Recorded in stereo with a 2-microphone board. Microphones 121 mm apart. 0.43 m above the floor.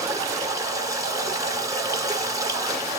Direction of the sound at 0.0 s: 30° right (ahead or behind).